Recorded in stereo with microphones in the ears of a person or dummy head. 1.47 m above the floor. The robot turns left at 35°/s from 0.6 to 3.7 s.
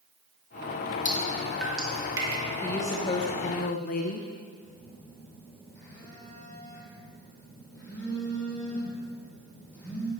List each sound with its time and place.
1.1 s dripping: 20° left (ahead or behind), 2 m; by 2.4 s 25° right (ahead or behind), 2 m
2.6 s a woman speaking: 170° left, 0.9 m; by 4.3 s 130° left, 0.9 m
4.6 s a phone buzzing: 10° left (ahead or behind), 4 m